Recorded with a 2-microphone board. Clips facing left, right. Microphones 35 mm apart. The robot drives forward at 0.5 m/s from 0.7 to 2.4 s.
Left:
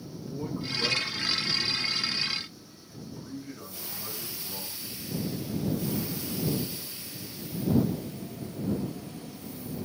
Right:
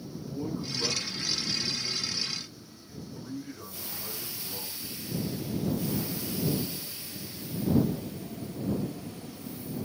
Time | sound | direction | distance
0.1 | a man speaking | 20° left (ahead or behind) | 2.5 m